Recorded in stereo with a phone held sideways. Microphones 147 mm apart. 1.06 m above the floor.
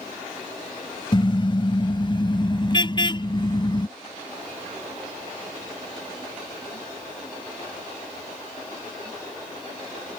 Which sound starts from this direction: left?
A car horn, at 1.1 s.